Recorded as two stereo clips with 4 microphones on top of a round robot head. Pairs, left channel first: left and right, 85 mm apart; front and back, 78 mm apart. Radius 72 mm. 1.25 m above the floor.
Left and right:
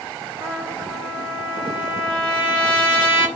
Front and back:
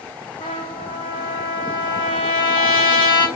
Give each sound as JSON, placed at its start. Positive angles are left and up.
{"t": 0.4, "sound": "a trumpet", "azimuth_deg": -30, "distance_m": 6.5}